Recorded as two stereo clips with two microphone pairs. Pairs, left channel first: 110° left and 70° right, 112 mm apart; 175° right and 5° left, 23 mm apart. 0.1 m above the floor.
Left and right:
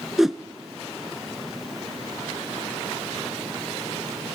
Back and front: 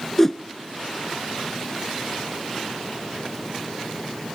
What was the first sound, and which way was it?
A whoosh, 135° right.